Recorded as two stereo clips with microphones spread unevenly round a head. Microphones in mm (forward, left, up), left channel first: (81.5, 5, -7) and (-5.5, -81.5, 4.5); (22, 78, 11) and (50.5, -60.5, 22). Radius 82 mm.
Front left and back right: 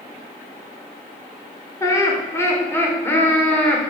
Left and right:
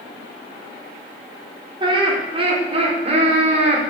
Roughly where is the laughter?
Ahead.